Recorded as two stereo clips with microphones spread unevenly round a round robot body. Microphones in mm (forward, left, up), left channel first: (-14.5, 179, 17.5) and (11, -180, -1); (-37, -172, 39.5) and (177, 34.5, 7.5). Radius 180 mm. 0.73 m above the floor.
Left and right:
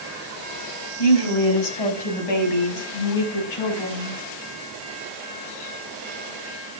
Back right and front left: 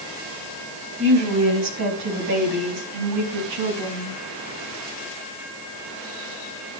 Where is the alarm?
No alarm in this recording.